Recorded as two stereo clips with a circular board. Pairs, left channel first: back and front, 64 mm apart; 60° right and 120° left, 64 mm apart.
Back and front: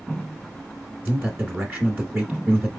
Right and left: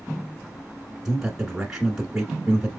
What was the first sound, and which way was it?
A man speaking, 40° left.